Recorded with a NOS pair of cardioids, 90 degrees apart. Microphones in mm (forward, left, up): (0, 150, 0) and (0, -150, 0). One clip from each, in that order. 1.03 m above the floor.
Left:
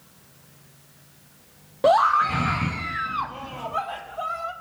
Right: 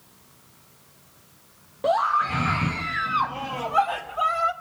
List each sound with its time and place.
1.8 s a scream: 30° left, 0.7 m; by 4.5 s 40° right, 1.9 m